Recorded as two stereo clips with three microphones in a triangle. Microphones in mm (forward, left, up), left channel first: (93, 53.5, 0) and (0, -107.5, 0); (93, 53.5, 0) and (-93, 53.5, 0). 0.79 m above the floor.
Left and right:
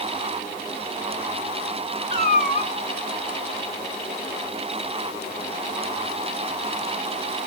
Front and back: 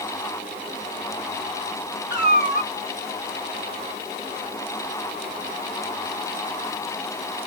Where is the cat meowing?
10° left, 1.8 m.